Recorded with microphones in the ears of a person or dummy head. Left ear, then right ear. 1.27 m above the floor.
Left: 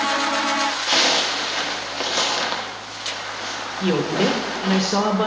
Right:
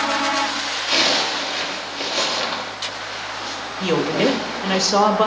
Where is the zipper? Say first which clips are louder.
Right 1 dB; 70° left (ahead or behind), 1.5 m.